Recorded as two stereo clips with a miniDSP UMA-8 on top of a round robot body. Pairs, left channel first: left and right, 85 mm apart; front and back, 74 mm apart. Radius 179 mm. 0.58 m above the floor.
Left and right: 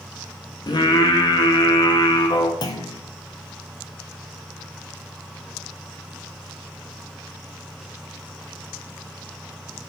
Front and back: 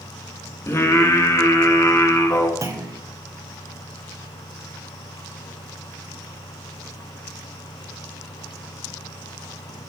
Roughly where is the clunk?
Behind left.